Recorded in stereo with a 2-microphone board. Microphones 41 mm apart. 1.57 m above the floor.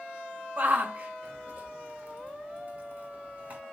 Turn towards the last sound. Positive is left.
turn(degrees=-45)  # may be behind; listen again after turning